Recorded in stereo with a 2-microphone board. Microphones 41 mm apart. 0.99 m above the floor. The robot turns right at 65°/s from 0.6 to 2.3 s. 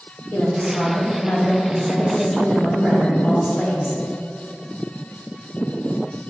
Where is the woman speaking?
85° left, 2.5 m; by 4.0 s 165° right, 2.5 m.